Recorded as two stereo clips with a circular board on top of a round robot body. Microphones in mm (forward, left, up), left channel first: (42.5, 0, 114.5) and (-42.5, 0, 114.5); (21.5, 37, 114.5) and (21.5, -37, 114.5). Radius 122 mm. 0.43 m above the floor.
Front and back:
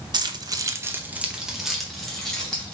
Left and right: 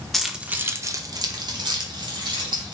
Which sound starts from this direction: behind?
Keys jangling, at 0.1 s.